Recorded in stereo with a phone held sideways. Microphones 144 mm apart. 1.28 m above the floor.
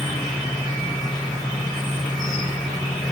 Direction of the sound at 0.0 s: Centre (ahead or behind).